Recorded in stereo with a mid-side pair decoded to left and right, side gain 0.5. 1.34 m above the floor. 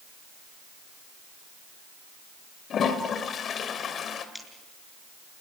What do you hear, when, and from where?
2.7 s a toilet flushing: 50° left, 2.5 m
4.3 s scissors: straight ahead, 5.5 m